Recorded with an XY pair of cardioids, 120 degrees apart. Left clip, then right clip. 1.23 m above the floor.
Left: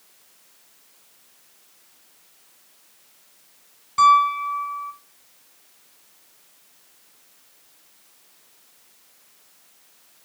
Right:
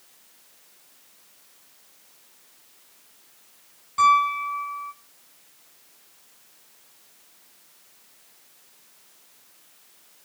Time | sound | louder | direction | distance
4.0 | a piano | left 3 dB | 30° left | 5.5 m